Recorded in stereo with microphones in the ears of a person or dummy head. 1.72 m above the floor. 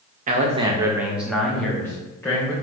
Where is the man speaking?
40° right (ahead or behind), 0.8 m; by 2.5 s 15° left (ahead or behind), 2 m.